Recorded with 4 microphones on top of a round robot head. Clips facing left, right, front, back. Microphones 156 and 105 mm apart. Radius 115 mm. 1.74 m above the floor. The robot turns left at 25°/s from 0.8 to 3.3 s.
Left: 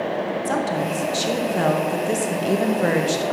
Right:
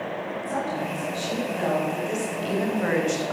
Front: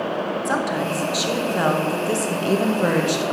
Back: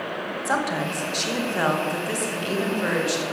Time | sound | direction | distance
0.5 | a woman speaking | 90° left | 2 m